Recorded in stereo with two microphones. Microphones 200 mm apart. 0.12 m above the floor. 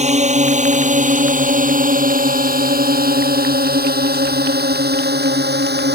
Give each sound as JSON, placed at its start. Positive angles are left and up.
{"t": 0.0, "sound": "a drone", "side_deg": -35}